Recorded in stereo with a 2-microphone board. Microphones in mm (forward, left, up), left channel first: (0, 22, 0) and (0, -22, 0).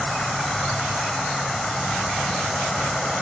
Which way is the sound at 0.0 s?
5° left (ahead or behind).